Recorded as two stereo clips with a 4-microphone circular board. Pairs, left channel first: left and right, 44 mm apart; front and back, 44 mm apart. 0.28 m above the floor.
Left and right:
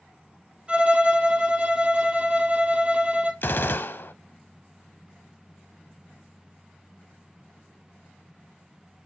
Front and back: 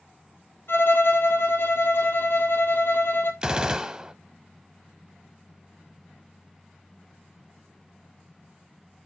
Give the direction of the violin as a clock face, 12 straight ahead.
1 o'clock.